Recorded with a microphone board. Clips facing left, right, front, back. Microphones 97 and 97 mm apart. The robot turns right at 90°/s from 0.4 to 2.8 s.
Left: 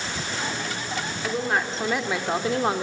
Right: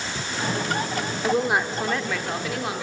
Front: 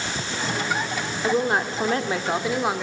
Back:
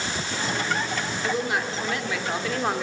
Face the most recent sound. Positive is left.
turn(degrees=90)